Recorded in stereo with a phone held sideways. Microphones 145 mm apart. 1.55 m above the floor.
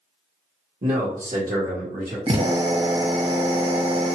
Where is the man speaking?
65° right (ahead or behind), 1.1 m; by 2.2 s 80° right, 1.7 m.